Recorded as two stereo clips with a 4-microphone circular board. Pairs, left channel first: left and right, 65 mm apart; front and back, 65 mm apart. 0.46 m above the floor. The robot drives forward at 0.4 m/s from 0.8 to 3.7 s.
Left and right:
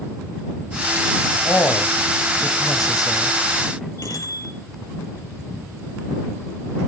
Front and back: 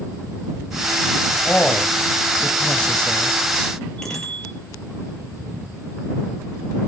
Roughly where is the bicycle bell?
Left.